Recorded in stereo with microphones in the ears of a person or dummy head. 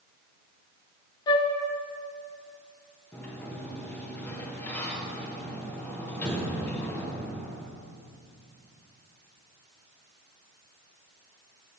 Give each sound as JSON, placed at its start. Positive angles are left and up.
{"t": 1.3, "sound": "a flute", "side_deg": 30, "distance_m": 0.6}
{"t": 3.1, "sound": "a sliding door", "side_deg": 15, "distance_m": 0.8}